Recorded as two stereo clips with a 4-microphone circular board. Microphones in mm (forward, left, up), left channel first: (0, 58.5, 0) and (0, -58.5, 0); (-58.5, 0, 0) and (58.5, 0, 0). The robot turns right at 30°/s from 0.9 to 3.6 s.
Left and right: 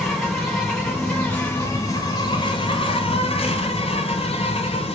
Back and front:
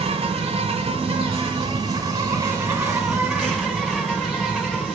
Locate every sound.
0.0 s an insect: straight ahead, 1.8 m; by 5.0 s 85° left, 1.8 m